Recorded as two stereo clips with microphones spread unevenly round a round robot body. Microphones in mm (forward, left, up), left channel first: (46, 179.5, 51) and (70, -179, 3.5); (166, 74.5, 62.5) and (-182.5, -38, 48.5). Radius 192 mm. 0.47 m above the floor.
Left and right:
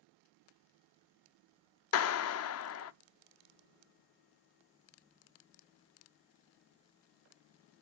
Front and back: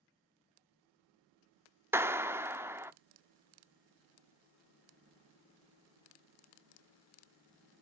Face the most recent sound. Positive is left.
turn(degrees=120)